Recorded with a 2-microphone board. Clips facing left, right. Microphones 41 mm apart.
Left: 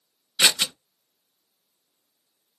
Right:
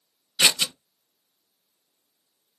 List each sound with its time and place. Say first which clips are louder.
0.4 s scissors: even; 45° left (ahead or behind), 1.4 m